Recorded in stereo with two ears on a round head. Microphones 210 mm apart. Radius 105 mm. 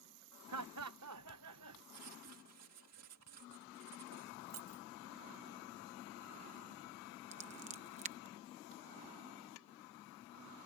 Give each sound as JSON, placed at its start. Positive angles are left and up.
{"t": 0.5, "sound": "laughter", "side_deg": -80}
{"t": 1.9, "sound": "writing", "side_deg": -70}
{"t": 4.5, "sound": "keys jangling", "side_deg": -60}
{"t": 7.3, "sound": "scissors", "side_deg": -30}